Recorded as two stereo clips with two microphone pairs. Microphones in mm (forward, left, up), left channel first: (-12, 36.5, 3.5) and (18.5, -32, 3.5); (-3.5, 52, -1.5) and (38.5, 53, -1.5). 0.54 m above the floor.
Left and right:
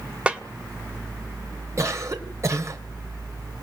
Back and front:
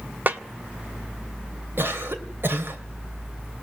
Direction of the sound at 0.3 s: Straight ahead.